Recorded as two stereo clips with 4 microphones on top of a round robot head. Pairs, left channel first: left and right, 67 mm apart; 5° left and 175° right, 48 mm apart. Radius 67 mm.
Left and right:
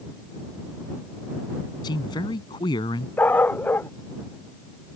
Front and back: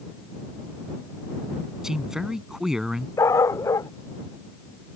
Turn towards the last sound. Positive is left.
turn(degrees=25)